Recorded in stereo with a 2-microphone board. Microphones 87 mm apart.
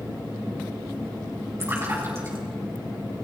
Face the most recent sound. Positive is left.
turn(degrees=-30)  # may be behind; listen again after turning